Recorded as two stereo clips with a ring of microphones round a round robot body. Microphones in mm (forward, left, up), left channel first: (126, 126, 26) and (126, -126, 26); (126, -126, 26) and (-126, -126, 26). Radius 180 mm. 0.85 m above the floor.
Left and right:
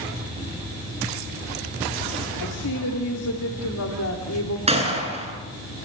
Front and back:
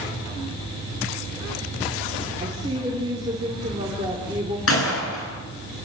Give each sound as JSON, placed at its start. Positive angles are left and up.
{"t": 2.4, "sound": "a woman speaking", "azimuth_deg": 105, "distance_m": 3.0}
{"t": 4.7, "sound": "a gunshot", "azimuth_deg": -25, "distance_m": 10.0}